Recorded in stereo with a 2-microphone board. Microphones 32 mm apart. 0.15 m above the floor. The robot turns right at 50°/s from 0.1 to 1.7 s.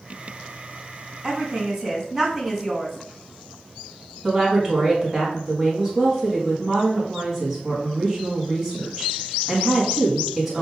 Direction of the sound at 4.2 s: 15° right (ahead or behind).